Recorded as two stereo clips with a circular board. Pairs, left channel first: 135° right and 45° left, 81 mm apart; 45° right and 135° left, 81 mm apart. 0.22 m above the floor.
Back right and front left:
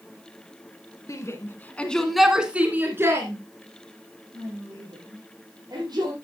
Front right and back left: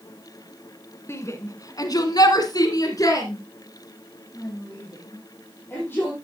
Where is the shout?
95° right, 2 m; by 6.1 s 20° left, 6 m.